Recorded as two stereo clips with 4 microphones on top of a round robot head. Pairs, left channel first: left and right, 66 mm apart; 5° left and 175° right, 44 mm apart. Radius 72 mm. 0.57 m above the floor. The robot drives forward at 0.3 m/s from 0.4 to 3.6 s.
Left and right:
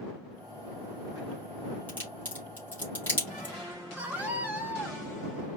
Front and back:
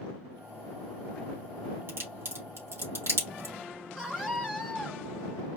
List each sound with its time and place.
1.9 s a crack: 155° left, 4 m; by 3.5 s 160° left, 4.5 m
4.0 s a scream: 110° right, 1.2 m